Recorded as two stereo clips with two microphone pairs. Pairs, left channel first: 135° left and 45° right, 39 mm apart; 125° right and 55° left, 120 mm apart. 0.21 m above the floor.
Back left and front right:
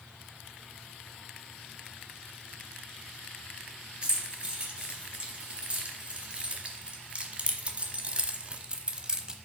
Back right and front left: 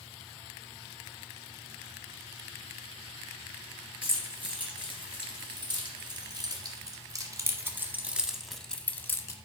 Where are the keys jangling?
15° left, 2.5 m; by 9.3 s 95° right, 0.8 m.